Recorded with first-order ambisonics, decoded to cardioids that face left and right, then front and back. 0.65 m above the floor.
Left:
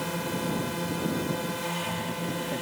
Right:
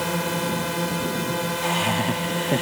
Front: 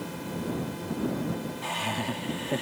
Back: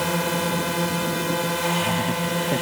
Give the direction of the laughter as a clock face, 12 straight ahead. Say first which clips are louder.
Right 9 dB, back 7 dB; 4 o'clock.